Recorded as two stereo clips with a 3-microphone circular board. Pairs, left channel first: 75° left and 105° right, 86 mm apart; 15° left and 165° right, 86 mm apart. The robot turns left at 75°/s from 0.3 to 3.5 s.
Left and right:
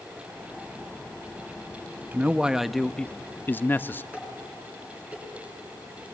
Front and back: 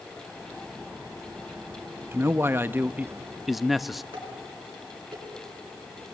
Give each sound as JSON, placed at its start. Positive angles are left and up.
{"t": 2.1, "sound": "a man speaking", "azimuth_deg": -150, "distance_m": 0.5}
{"t": 4.1, "sound": "dishes clattering", "azimuth_deg": 180, "distance_m": 6.5}